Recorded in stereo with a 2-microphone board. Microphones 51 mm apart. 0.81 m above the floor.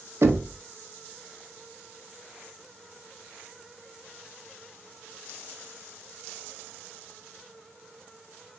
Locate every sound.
0.2 s knocking: 60° right (ahead or behind), 1.0 m